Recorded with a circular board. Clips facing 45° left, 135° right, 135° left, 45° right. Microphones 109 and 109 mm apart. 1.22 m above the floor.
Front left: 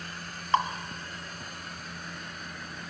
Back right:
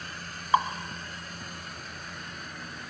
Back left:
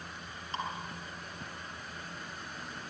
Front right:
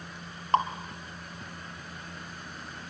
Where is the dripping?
55° right, 2 m.